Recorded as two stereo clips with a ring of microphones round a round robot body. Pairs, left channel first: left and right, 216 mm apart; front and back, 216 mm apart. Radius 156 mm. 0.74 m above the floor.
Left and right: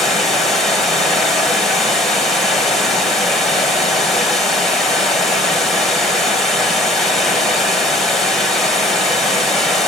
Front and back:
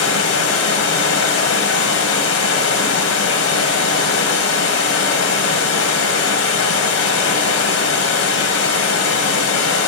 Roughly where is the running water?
Ahead.